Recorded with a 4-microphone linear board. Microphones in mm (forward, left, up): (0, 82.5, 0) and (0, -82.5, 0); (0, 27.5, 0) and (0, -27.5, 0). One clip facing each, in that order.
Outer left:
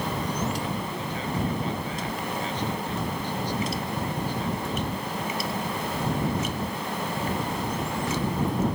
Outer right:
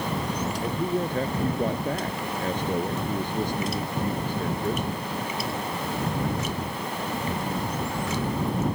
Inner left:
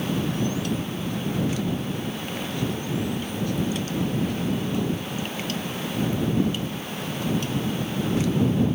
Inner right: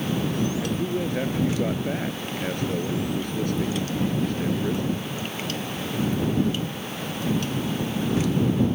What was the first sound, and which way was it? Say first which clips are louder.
A man speaking: outer right 5 dB, inner right 2 dB; 50° right (ahead or behind).